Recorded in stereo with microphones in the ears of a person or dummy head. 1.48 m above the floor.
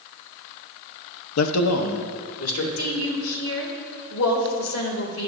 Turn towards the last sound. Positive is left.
turn(degrees=80)